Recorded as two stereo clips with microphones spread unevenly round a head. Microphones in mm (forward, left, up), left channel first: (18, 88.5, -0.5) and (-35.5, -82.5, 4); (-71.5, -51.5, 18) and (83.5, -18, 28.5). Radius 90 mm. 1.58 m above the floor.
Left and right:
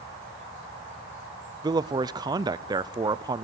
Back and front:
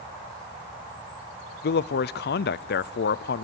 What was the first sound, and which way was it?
A man speaking, 175° right.